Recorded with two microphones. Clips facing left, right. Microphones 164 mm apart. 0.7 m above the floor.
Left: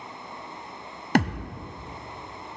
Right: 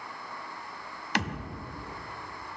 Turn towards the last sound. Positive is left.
turn(degrees=50)  # may be behind; listen again after turning